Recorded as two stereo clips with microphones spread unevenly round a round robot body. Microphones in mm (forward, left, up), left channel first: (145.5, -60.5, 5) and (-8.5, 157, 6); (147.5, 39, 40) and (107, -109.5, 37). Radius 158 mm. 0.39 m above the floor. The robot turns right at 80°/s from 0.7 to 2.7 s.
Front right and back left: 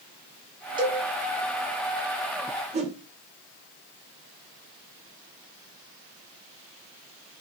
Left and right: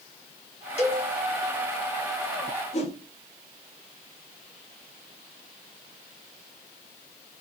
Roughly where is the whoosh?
Left.